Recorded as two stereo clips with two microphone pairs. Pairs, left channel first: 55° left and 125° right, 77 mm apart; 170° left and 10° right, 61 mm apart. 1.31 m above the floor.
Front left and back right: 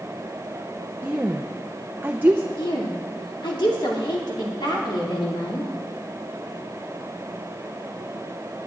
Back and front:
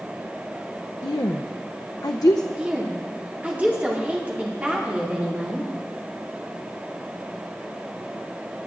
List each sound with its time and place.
1.0 s a woman speaking: 165° left, 0.6 m
2.6 s a woman speaking: 55° left, 3 m